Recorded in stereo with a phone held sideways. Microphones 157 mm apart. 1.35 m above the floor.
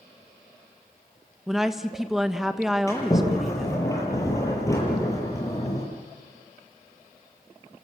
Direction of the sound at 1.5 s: 5° right (ahead or behind).